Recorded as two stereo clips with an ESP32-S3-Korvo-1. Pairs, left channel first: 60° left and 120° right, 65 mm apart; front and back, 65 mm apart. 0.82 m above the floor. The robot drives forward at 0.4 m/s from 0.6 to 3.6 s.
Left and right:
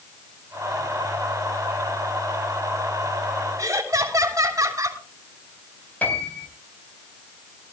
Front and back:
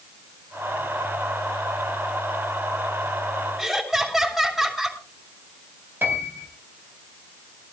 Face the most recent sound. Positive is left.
turn(degrees=125)